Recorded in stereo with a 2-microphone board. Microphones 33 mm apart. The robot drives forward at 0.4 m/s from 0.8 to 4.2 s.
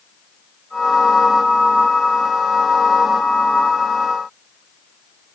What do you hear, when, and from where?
Only background noise.